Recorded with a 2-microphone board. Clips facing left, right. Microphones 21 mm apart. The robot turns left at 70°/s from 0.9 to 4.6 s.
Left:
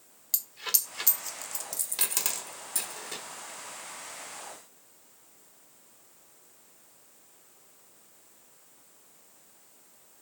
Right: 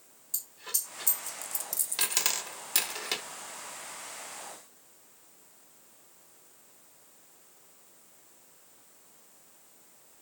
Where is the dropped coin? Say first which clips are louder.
Left 5 dB; 70° left (ahead or behind), 1.1 m; by 3.2 s 85° right, 1.1 m.